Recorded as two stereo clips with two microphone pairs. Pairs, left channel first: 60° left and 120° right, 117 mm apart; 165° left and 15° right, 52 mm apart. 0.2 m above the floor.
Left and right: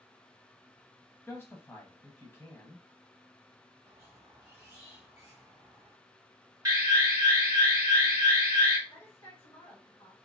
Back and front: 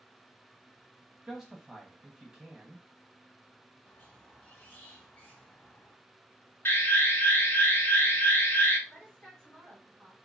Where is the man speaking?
35° left, 1.0 m.